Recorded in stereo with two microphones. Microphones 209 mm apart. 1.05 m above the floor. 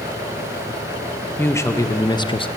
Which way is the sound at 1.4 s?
10° left (ahead or behind).